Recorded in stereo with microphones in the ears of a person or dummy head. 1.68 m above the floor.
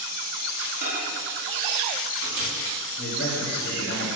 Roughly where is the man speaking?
Left.